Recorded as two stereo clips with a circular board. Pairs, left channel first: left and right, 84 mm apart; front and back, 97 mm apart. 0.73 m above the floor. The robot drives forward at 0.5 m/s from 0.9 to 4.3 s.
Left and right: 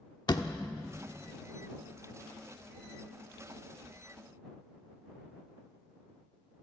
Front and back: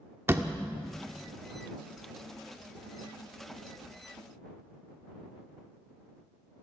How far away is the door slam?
About 1.3 m.